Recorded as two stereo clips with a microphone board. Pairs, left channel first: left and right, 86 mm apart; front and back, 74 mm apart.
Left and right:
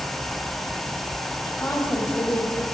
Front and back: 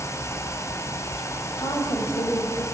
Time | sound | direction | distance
1.6 | a woman speaking | 25° left | 4 m